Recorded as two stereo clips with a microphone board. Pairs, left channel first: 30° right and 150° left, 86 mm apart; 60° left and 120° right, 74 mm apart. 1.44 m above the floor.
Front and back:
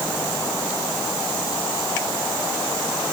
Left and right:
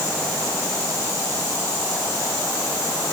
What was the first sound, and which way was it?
Only background noise.